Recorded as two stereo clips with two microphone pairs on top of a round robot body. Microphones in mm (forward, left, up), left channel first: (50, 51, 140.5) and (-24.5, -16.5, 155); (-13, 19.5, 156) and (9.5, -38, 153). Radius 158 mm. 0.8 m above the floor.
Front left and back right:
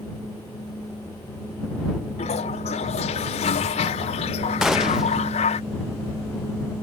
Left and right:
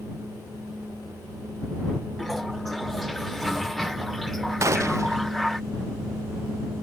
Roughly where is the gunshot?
Ahead right.